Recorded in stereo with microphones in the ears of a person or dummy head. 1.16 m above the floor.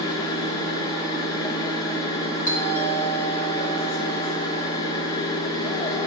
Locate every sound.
0.0 s a machine running: 20° left (ahead or behind), 0.8 m
2.5 s a doorbell: 15° left (ahead or behind), 1.9 m